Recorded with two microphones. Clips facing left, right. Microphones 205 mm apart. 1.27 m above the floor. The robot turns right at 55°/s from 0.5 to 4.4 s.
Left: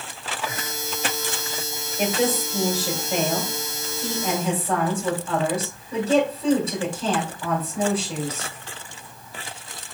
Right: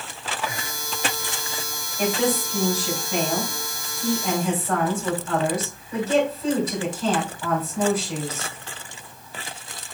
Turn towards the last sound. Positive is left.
turn(degrees=150)